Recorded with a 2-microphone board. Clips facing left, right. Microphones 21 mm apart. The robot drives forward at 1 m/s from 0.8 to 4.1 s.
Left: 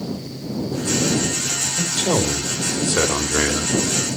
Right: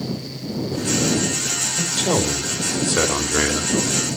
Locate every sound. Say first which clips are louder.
1.8 s a man speaking: even; 10° right (ahead or behind), 2 m; by 3.7 s 20° right (ahead or behind), 0.9 m